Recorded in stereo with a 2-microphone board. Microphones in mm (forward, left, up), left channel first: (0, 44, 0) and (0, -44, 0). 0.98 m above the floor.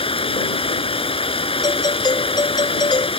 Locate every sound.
0.0 s running water: 90° left
1.6 s a doorbell: 50° left (ahead or behind)